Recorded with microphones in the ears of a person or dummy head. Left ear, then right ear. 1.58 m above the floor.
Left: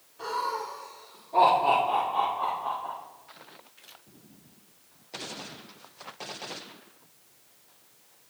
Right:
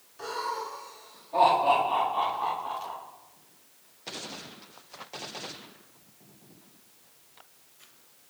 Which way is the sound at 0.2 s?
15° right (ahead or behind).